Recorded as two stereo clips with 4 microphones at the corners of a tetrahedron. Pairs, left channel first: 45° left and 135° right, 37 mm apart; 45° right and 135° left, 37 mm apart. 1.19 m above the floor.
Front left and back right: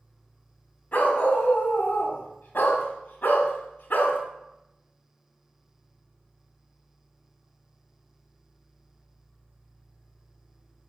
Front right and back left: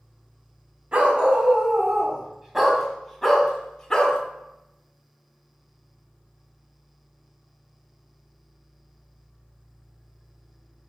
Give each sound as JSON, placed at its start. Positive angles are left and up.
{"t": 0.9, "sound": "a dog barking", "azimuth_deg": 85, "distance_m": 2.5}